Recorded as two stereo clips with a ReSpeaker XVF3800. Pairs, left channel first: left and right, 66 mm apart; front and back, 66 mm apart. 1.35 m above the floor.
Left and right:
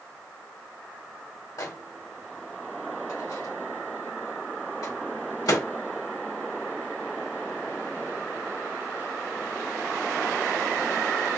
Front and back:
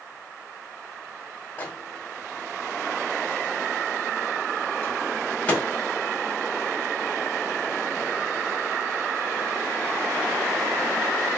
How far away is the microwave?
About 1.5 m.